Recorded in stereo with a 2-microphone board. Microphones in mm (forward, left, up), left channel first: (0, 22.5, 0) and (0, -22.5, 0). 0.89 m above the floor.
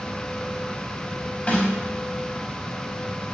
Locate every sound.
1.5 s a snare drum: 40° left (ahead or behind), 4.5 m